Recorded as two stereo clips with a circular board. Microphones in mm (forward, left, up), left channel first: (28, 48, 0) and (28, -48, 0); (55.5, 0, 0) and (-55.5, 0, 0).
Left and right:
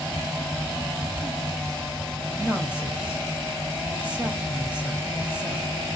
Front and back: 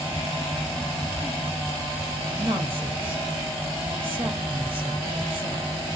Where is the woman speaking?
165° right, 2.5 m.